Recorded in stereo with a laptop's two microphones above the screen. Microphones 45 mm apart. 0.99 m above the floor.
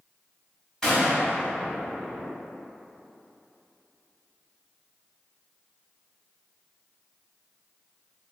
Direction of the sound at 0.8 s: 15° left (ahead or behind).